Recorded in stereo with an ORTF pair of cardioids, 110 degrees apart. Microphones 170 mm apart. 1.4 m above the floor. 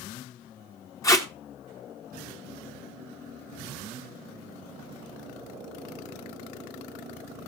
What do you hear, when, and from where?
1.0 s tape being pulled: 20° left, 1.4 m